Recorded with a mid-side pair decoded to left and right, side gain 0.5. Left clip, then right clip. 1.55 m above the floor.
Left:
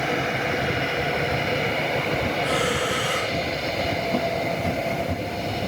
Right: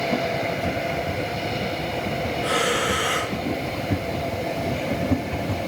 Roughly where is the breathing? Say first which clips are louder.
Right 4 dB; ahead.